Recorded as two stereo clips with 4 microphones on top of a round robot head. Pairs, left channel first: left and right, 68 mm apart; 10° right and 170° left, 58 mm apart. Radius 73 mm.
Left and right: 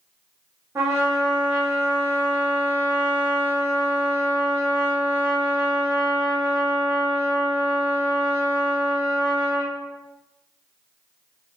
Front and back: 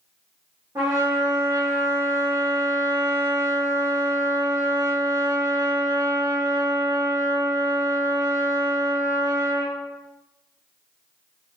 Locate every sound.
0.8 s a trumpet: 140° right, 0.7 m